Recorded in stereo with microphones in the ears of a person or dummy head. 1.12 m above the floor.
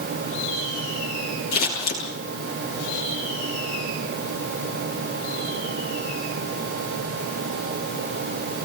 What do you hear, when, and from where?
1.5 s scissors: 55° left (ahead or behind), 10 m